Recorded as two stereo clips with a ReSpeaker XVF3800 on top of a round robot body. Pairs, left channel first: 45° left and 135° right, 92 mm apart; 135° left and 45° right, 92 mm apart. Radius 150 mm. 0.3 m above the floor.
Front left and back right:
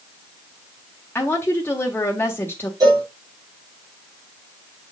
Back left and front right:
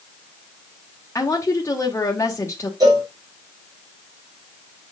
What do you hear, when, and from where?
1.1 s a woman speaking: 100° left, 1.8 m
2.8 s a cowbell: 90° right, 3.5 m